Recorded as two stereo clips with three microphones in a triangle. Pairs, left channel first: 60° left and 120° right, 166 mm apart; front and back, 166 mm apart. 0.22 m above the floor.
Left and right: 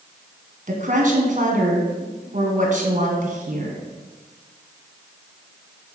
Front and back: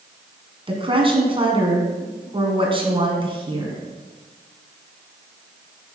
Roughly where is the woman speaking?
Behind right.